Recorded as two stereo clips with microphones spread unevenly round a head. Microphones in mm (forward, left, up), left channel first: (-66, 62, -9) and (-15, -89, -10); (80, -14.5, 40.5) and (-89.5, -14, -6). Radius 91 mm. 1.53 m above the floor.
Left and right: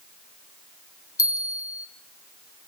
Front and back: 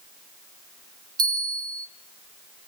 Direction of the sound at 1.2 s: 105° left.